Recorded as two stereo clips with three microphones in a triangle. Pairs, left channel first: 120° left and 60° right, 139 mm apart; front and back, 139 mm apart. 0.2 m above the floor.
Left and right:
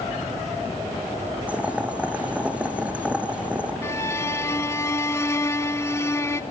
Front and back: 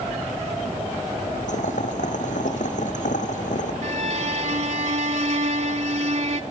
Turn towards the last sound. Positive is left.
turn(degrees=-175)